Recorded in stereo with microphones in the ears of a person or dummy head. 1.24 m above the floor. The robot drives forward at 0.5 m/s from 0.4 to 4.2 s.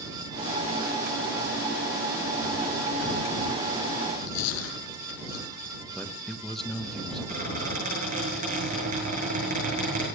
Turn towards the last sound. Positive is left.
turn(degrees=-40)  # may be behind; listen again after turning